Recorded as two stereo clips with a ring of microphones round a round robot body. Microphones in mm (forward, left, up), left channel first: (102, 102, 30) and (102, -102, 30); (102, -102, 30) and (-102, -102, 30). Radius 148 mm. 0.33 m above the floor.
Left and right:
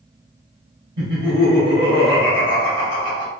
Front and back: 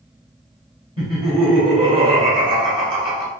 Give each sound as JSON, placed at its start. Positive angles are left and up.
{"t": 1.0, "sound": "laughter", "azimuth_deg": -140, "distance_m": 1.6}